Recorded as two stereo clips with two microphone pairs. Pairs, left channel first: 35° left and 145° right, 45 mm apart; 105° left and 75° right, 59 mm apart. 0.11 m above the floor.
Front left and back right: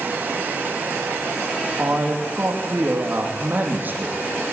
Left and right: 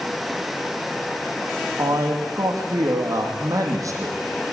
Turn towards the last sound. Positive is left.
turn(degrees=-95)